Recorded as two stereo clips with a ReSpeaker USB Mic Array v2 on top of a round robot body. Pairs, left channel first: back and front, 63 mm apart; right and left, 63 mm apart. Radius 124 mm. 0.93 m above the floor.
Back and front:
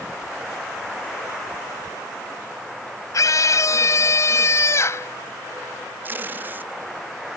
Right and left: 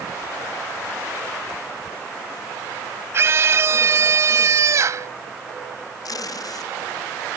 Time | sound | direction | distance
3.1 | a scream | 140° left | ?
6.0 | tape being pulled | 60° right | ?